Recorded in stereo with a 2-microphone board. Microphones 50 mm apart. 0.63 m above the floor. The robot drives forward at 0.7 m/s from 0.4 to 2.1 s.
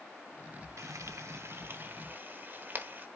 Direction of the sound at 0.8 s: 80° right.